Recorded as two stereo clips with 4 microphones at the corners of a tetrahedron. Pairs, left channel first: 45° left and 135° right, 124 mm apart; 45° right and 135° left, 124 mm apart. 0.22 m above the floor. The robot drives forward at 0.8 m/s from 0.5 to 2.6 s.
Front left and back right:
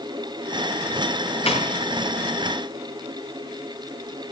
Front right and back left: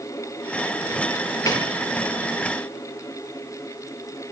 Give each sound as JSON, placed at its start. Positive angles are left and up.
{"t": 1.5, "sound": "a snare drum", "azimuth_deg": 15, "distance_m": 3.5}